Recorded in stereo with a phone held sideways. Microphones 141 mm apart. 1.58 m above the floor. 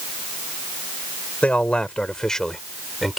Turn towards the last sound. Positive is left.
turn(degrees=0)  # may be behind; listen again after turning